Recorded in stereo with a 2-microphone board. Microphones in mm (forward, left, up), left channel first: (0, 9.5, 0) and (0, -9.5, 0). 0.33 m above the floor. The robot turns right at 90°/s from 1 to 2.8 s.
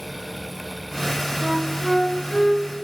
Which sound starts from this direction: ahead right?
A flute, at 1.4 s.